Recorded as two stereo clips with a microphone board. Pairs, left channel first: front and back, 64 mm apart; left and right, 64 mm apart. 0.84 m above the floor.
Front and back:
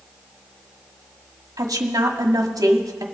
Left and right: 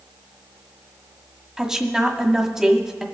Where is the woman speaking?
170° right, 1.5 m.